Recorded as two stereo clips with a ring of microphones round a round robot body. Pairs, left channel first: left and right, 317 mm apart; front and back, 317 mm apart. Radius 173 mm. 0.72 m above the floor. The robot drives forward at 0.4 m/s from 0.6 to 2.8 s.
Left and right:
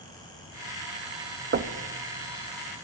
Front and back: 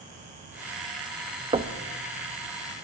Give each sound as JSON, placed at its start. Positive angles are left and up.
{"t": 1.5, "sound": "knocking", "azimuth_deg": -120, "distance_m": 0.7}